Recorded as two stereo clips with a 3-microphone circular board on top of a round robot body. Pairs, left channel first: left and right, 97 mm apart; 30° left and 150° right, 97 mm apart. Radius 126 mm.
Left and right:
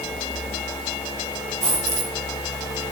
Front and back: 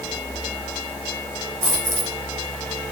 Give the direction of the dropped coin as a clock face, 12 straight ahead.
3 o'clock.